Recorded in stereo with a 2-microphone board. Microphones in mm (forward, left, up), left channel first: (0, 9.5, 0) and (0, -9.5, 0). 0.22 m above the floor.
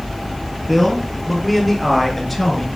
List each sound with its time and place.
0.7 s a man speaking: centre (ahead or behind), 6 m; by 2.7 s 5° left (ahead or behind), 3.5 m